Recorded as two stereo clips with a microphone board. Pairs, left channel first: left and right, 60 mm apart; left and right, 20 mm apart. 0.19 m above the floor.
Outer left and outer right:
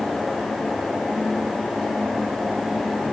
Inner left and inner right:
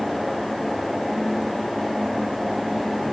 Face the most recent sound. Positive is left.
No sound to turn to.